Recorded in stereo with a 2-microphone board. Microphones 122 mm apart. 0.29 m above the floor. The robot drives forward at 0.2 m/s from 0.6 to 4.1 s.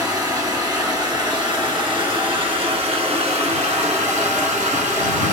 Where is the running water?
35° right (ahead or behind), 1.1 m; by 5.3 s 70° right (ahead or behind), 0.7 m.